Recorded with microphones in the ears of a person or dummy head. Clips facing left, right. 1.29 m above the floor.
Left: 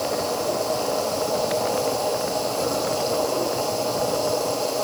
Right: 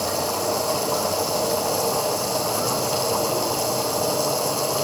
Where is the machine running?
75° right (ahead or behind), 9.5 m.